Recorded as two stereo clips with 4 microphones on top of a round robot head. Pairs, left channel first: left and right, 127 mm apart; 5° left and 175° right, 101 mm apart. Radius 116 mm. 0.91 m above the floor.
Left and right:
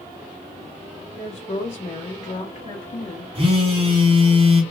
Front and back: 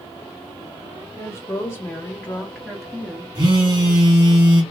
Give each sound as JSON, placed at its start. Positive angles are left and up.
{"t": 1.2, "sound": "a woman speaking", "azimuth_deg": 60, "distance_m": 1.4}
{"t": 3.4, "sound": "a phone buzzing", "azimuth_deg": -125, "distance_m": 1.3}